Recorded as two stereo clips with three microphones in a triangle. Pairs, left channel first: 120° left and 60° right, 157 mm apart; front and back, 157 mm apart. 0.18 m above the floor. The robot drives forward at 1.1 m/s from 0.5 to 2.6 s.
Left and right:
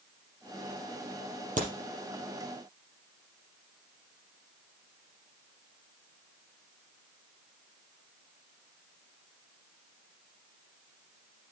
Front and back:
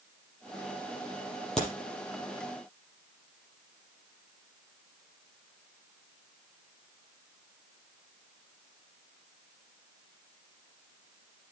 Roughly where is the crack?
Right.